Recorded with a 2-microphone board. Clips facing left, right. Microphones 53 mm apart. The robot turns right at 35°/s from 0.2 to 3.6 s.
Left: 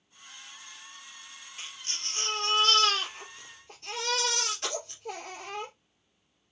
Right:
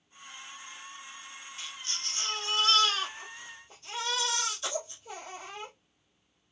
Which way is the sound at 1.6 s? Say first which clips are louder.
Even; 35° left.